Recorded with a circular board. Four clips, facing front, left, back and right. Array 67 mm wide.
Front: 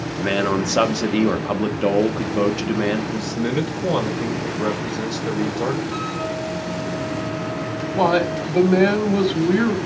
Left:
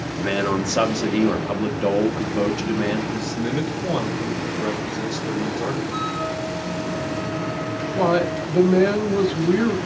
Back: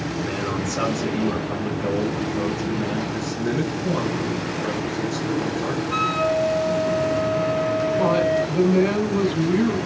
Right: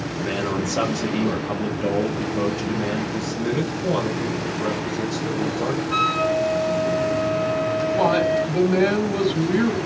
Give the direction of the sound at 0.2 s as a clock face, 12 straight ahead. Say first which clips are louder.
Left 3 dB, front 8 dB; 11 o'clock.